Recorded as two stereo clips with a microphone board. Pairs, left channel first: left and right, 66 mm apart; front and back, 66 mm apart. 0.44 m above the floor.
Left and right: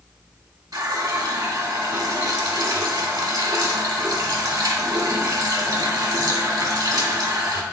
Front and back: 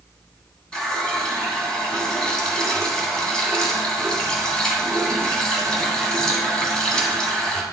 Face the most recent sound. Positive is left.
turn(degrees=-80)